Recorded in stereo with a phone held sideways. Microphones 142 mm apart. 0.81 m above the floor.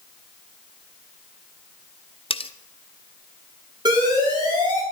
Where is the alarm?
30° right (ahead or behind), 8 m.